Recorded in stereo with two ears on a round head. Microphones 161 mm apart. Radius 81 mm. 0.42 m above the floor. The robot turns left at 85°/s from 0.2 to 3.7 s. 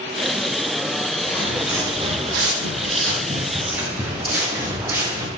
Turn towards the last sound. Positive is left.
turn(degrees=-15)  # may be behind; listen again after turning